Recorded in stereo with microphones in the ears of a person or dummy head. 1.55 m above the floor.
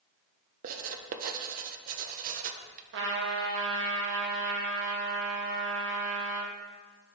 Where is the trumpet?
70° right (ahead or behind), 0.9 m.